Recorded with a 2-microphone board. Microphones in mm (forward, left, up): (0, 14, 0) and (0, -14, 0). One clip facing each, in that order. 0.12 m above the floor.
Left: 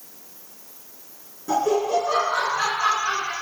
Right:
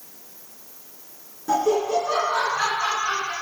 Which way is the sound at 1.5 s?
10° right (ahead or behind).